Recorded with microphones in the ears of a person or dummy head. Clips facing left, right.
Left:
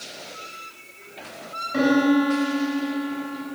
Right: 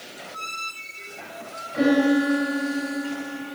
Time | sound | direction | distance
1.7 | a piano | 60° left (ahead or behind) | 6 m